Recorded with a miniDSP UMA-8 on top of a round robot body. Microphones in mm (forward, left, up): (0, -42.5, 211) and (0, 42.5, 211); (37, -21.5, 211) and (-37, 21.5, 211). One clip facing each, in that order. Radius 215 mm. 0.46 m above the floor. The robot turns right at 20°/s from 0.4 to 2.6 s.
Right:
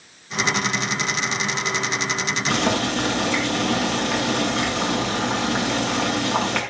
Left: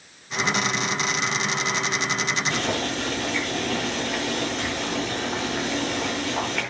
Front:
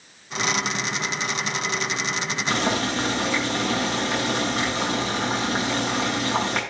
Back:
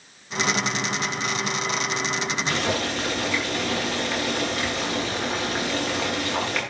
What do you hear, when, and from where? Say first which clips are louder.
2.5 s boiling: right 4 dB, front 4 dB; 95° right, 6.5 m